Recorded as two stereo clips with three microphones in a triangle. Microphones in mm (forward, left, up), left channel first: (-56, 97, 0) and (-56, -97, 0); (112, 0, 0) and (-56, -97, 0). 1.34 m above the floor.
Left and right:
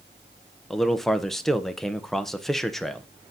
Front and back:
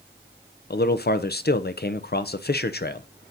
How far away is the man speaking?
About 0.5 m.